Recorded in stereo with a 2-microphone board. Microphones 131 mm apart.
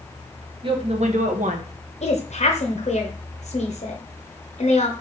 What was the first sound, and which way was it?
A woman speaking, 40° right (ahead or behind).